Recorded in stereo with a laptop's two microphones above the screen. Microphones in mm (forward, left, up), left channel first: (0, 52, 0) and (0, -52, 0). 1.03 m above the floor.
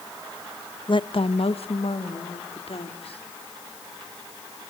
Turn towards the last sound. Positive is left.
turn(degrees=70)  # may be behind; listen again after turning